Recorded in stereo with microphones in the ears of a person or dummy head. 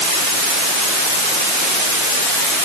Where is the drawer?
No drawer in this recording.